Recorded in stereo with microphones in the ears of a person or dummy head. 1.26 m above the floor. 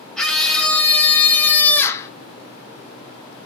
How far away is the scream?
About 2 m.